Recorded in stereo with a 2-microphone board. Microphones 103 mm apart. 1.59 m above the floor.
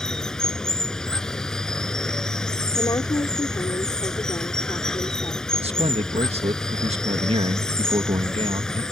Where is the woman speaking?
40° left (ahead or behind).